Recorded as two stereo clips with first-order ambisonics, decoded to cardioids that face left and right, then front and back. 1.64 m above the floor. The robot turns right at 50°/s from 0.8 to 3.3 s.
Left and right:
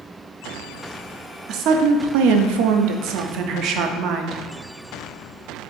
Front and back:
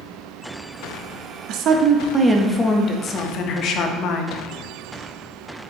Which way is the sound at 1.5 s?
140° right.